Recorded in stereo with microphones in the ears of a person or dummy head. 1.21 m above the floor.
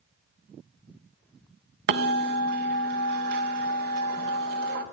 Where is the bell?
50° right (ahead or behind), 0.5 m.